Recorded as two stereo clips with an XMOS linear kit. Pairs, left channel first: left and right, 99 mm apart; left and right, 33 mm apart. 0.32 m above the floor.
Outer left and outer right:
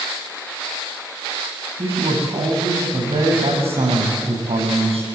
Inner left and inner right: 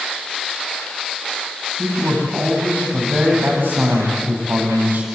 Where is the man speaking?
80° right, 9 m.